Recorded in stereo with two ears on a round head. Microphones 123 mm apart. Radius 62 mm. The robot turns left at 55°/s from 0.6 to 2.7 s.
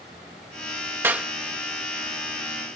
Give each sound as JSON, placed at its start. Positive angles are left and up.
{"t": 1.0, "sound": "a clap", "side_deg": -15}